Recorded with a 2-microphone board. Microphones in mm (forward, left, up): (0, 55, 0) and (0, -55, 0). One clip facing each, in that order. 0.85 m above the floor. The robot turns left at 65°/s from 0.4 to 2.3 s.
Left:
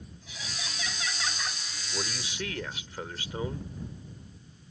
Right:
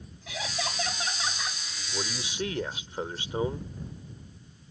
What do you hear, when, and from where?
0.3 s laughter: 105° right; by 1.6 s straight behind
1.9 s a man speaking: 5° right (ahead or behind); by 3.7 s 25° right (ahead or behind)